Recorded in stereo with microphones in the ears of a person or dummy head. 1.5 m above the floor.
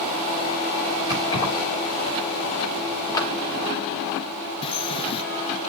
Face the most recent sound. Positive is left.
turn(degrees=30)  # may be behind; listen again after turning